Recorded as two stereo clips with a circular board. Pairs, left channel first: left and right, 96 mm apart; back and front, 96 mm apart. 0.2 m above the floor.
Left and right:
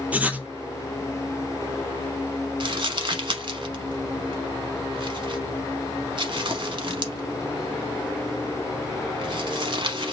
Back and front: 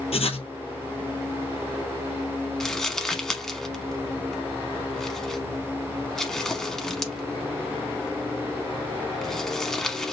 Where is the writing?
165° right, 0.7 m.